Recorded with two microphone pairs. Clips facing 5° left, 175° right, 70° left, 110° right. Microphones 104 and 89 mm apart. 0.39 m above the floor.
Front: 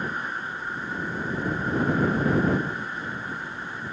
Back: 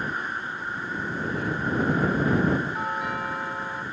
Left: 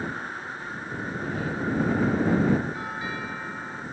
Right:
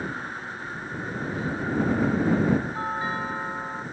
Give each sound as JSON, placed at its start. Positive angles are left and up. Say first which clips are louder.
{"t": 1.2, "sound": "breathing", "louder": "even, even", "azimuth_deg": -170}
{"t": 2.7, "sound": "a doorbell", "louder": "back 5 dB, right 4 dB", "azimuth_deg": -165}